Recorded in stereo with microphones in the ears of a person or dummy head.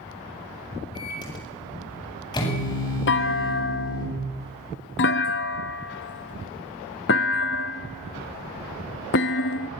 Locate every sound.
0.9 s a microwave: 20° left (ahead or behind), 8.5 m
3.1 s a clunk: 55° left (ahead or behind), 1.2 m